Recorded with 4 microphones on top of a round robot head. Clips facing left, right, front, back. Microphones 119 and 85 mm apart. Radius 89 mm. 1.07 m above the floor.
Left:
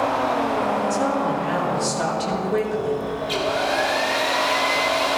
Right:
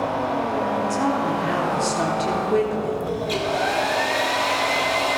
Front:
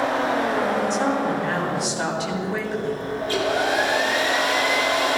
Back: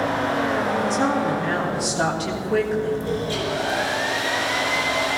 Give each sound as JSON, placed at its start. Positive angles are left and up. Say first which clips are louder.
{"t": 0.9, "sound": "a woman speaking", "louder": "even, back 1 dB", "azimuth_deg": -130, "distance_m": 3.5}
{"t": 3.2, "sound": "a hair dryer", "louder": "right 1 dB, front 3 dB", "azimuth_deg": -45, "distance_m": 3.0}